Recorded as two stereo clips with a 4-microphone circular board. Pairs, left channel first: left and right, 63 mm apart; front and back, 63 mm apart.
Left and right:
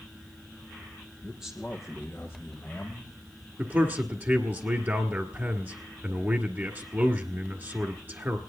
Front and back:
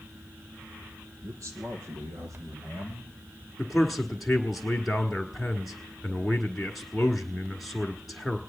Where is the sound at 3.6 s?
85° right, 1.4 m.